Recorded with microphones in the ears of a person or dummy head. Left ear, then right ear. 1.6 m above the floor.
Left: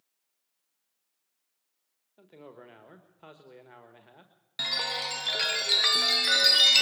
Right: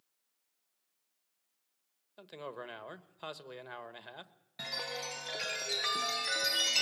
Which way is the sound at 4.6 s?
30° left (ahead or behind).